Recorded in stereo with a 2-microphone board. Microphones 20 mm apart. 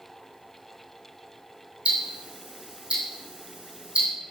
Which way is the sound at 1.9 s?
75° right (ahead or behind).